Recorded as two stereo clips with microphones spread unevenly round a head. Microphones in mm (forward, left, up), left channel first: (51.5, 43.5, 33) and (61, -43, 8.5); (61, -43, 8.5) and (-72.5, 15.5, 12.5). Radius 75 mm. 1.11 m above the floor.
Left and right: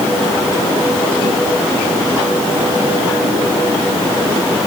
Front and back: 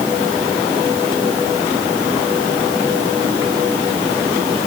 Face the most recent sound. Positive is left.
No sound to turn to.